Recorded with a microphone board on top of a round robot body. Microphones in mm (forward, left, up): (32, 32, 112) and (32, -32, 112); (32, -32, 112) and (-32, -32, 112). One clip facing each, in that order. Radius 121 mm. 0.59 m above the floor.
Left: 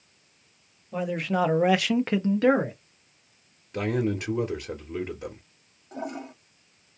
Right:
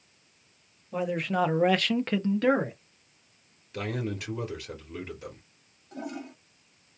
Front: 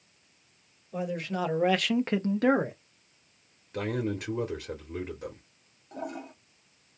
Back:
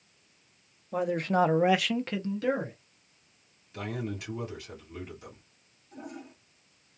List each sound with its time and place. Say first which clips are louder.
0.9 s a man speaking: left 1 dB, back 6 dB; straight behind, 1.1 m; by 2.8 s 10° left, 1.1 m
3.7 s a man speaking: left 6 dB, front 5 dB; 45° left, 1.5 m
5.9 s a toilet flushing: left 3 dB, front 6 dB; 30° left, 1.3 m